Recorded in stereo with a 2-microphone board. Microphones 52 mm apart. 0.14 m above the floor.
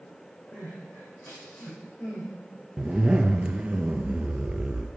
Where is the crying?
30° left (ahead or behind), 3 m.